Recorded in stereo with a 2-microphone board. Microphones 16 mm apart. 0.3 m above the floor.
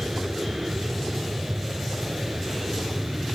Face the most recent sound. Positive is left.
turn(degrees=-65)  # may be behind; listen again after turning